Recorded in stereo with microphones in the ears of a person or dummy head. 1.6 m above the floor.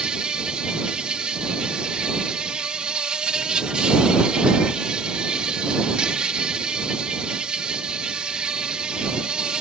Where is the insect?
5° right (ahead or behind).